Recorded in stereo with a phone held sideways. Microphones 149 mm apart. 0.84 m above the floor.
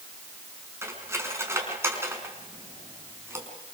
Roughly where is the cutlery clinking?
Centre.